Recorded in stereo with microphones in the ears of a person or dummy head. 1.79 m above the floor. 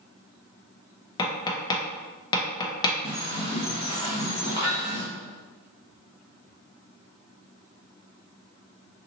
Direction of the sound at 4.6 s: 20° right (ahead or behind).